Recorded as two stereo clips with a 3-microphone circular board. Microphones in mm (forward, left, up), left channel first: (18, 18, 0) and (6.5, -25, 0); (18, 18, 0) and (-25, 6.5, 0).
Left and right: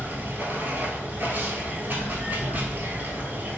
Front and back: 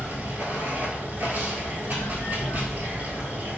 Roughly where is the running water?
Behind right.